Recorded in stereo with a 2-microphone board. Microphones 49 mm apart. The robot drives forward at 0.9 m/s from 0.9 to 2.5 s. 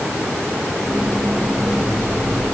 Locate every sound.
Only background noise.